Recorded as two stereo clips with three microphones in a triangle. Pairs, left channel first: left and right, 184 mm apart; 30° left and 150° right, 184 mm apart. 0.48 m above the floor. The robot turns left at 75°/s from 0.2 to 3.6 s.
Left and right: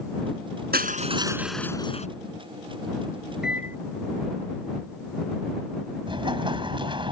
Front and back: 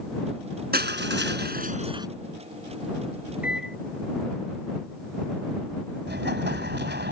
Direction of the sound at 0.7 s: 120° right.